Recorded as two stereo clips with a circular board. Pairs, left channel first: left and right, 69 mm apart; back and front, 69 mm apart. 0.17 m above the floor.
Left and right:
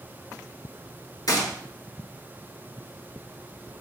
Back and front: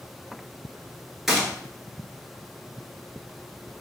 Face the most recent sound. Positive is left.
turn(degrees=85)